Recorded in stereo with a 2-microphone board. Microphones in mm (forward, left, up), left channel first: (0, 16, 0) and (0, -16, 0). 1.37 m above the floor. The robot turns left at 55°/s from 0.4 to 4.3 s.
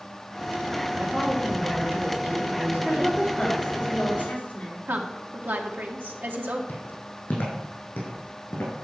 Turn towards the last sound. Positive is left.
turn(degrees=75)  # may be behind; listen again after turning